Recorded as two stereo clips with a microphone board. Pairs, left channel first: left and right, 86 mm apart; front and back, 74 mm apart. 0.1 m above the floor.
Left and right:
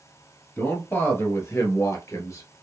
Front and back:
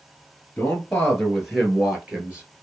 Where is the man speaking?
55° left, 1.2 m; by 2.6 s 120° left, 1.6 m.